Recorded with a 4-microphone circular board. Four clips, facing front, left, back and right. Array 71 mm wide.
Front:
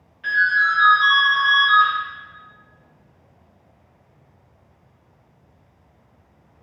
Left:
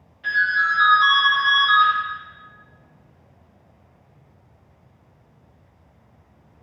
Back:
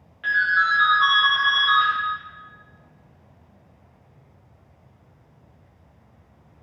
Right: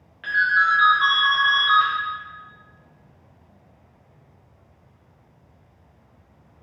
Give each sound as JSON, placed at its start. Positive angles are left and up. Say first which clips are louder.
{"t": 0.2, "sound": "a ringtone", "louder": "right 1 dB, front 2 dB", "azimuth_deg": -125, "distance_m": 1.2}